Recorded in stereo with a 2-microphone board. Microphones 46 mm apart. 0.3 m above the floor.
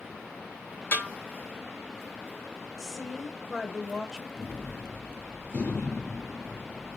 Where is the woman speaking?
10° left (ahead or behind), 1.1 m.